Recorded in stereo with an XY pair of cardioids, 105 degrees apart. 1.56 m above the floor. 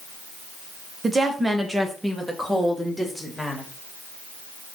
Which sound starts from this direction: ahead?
A woman speaking, at 1.0 s.